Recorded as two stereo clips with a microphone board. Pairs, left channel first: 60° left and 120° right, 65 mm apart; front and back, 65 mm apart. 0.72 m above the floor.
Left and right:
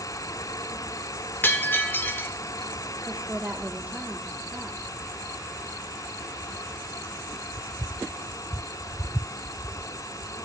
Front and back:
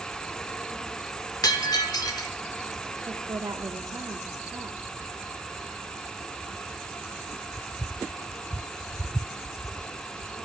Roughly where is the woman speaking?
Behind.